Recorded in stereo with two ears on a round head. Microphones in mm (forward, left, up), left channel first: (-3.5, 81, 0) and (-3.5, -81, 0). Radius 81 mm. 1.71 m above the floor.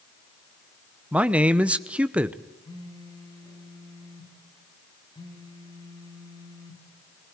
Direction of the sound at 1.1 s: 5° right (ahead or behind).